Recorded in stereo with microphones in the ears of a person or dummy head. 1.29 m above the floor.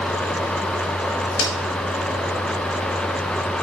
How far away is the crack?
About 3.5 m.